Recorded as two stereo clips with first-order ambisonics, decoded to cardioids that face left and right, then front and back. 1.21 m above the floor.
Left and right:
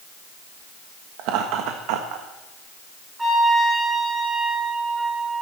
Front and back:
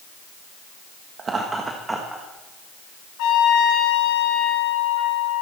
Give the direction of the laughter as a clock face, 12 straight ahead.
4 o'clock.